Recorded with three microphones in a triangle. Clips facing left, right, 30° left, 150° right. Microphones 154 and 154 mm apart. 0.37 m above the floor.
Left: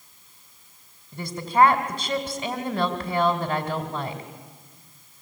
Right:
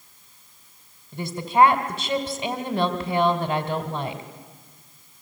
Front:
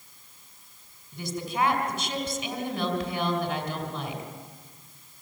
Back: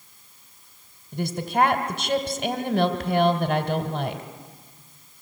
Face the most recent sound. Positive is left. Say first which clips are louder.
# right 1 dB, back 6 dB
turn(degrees=-170)